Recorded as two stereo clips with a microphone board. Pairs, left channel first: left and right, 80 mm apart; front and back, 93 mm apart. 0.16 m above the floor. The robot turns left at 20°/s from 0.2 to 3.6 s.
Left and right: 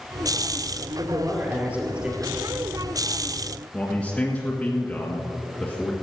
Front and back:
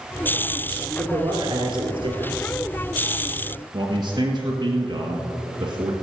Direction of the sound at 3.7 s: 165° left.